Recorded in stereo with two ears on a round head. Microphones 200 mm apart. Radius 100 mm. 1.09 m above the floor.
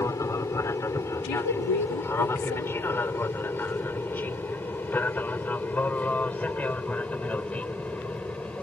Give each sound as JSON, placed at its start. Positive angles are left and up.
{"t": 0.0, "sound": "an aircraft", "side_deg": 15}
{"t": 1.2, "sound": "a woman speaking", "side_deg": 80}